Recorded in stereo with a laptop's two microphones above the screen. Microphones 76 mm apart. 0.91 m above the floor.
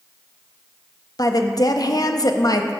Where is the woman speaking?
55° left (ahead or behind), 0.7 m.